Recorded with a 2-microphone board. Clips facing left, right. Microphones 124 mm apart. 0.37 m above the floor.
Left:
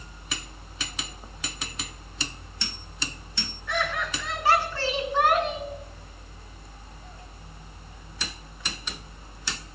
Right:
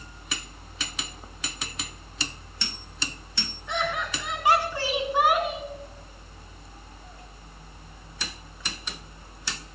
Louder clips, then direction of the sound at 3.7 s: Even; 20° right (ahead or behind).